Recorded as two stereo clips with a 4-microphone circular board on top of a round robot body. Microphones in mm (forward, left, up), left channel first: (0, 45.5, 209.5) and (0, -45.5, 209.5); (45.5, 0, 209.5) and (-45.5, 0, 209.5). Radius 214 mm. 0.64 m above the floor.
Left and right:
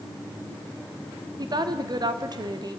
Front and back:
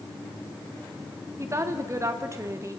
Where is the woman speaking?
125° right, 2.5 m.